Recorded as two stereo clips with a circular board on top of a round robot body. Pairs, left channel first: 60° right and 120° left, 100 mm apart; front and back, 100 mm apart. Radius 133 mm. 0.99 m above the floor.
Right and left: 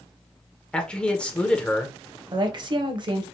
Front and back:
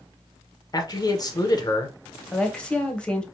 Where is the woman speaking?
80° left, 0.7 m.